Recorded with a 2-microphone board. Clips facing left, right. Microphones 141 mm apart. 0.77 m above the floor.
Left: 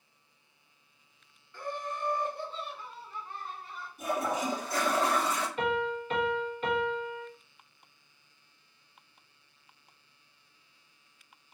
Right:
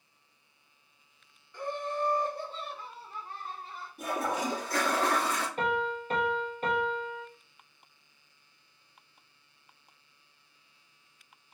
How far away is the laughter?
About 0.9 m.